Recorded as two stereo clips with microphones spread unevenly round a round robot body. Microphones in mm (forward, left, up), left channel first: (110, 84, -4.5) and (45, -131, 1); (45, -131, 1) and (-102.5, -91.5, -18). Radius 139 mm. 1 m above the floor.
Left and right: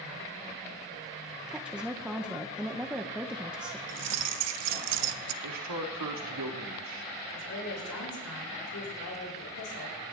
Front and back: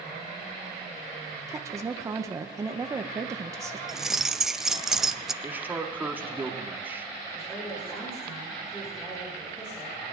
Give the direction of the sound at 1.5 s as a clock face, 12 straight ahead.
6 o'clock.